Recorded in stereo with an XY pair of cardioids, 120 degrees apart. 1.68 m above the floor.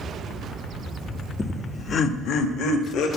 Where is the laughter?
25° left, 0.5 m; by 3.1 s 70° left, 1.2 m.